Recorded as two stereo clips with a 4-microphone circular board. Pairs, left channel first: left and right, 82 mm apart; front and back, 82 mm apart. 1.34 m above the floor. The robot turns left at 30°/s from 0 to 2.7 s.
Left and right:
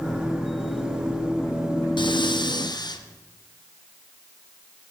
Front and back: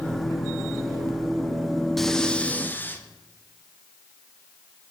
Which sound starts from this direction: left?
Breathing, at 2.0 s.